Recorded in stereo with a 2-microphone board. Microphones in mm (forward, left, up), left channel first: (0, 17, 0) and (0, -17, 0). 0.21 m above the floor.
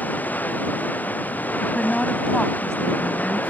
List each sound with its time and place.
0.0 s running water: 55° left (ahead or behind)
1.6 s a woman speaking: 25° left (ahead or behind)